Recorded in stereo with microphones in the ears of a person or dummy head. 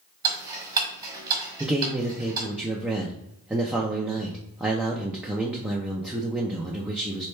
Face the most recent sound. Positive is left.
turn(degrees=-5)  # may be behind; listen again after turning